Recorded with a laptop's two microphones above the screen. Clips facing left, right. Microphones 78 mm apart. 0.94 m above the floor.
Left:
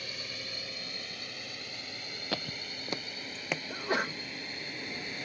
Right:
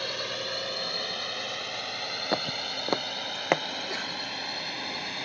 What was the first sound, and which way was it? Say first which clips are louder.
A drone: right 10 dB; 80° right.